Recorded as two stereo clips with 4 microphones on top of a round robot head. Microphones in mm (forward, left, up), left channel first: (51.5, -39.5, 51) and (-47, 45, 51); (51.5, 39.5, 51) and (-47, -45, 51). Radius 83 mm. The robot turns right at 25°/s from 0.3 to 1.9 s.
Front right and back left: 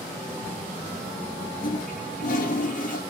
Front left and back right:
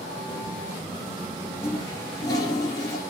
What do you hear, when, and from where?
1.6 s a toilet flushing: 30° right, 3 m; by 3.0 s 25° right, 3 m